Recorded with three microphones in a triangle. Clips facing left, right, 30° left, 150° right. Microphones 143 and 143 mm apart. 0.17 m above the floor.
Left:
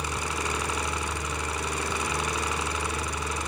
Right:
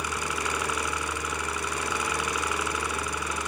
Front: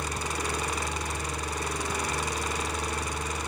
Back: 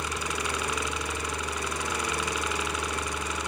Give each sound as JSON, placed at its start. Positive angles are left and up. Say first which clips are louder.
{"t": 0.0, "sound": "a helicopter", "louder": "even, even", "azimuth_deg": 40}